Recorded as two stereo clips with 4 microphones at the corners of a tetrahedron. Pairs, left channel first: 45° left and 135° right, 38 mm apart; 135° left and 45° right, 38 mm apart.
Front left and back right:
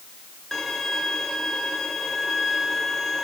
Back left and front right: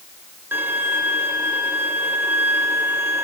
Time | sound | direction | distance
0.5 | a violin | 35° right | 1.5 m